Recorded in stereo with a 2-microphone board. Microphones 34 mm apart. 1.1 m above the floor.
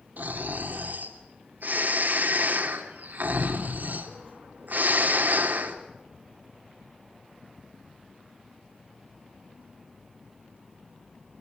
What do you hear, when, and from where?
0.2 s snoring: 60° right (ahead or behind), 2.5 m